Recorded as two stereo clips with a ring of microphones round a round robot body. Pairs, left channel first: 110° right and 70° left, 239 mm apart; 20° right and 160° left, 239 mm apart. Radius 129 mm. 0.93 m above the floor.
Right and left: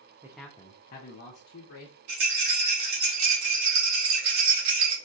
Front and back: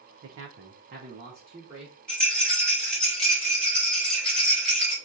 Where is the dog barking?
No dog barking in this recording.